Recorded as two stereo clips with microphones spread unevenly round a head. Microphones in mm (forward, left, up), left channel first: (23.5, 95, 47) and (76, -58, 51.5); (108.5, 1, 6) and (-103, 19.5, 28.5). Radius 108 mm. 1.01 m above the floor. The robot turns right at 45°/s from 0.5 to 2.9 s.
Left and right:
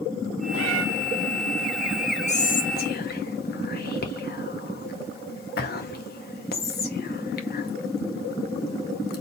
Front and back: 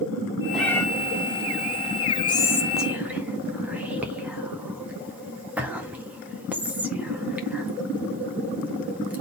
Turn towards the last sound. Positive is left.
turn(degrees=90)